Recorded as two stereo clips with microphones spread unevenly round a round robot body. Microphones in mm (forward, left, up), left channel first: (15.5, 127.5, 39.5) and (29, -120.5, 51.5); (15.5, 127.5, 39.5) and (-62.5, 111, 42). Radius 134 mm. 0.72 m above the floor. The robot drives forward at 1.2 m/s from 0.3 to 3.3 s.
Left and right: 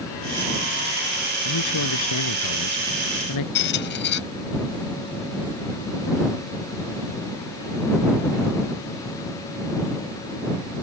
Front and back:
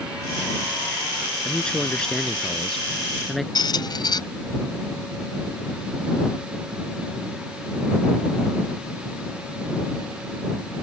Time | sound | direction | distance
1.4 | a man speaking | 90° left | ?
3.5 | a squeak | 45° left | ?